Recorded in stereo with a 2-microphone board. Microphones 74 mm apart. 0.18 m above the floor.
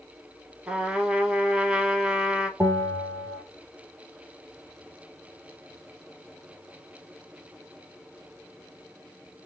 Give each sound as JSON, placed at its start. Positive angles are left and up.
{"t": 0.7, "sound": "a trumpet", "side_deg": -15, "distance_m": 1.2}
{"t": 2.6, "sound": "a bell", "side_deg": -50, "distance_m": 2.5}